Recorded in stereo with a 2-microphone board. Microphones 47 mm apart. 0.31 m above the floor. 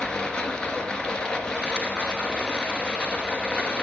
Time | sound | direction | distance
0.0 | running water | 20° left (ahead or behind) | 1.4 m